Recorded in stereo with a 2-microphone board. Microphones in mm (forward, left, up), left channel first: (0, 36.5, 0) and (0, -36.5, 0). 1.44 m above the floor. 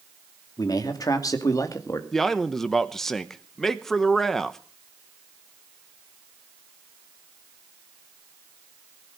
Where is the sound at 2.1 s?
5° left (ahead or behind), 1.0 m.